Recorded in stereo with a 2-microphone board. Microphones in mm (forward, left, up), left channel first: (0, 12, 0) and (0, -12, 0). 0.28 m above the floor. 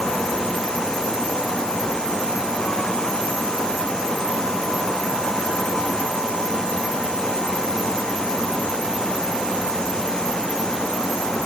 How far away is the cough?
I don't hear a cough.